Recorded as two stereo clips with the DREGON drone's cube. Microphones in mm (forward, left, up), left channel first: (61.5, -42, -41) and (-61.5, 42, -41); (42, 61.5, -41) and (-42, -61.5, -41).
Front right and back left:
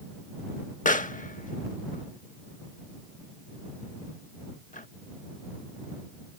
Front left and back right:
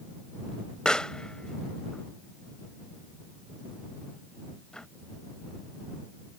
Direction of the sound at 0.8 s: 30° right.